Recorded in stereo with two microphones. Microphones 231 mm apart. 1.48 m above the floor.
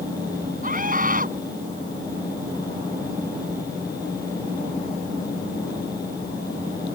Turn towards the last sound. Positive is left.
turn(degrees=-35)  # may be behind; listen again after turning